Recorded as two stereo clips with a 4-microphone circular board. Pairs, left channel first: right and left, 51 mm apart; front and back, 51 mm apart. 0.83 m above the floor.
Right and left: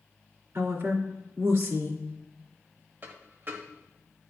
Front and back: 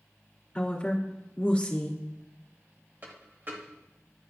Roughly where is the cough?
I don't hear a cough.